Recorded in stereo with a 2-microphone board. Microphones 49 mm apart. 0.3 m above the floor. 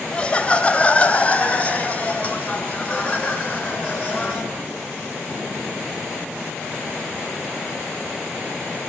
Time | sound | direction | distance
0.1 | laughter | 20° left (ahead or behind) | 1.2 m